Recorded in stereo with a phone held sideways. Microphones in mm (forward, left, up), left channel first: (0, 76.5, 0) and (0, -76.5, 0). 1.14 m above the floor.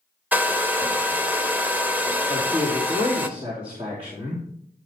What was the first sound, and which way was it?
A hair dryer, 10° right (ahead or behind).